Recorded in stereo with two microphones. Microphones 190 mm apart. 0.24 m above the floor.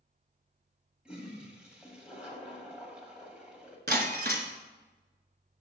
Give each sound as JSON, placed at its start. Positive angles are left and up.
{"t": 1.1, "sound": "a toilet flushing", "side_deg": -5, "distance_m": 1.6}
{"t": 3.9, "sound": "breaking glass", "side_deg": -60, "distance_m": 1.0}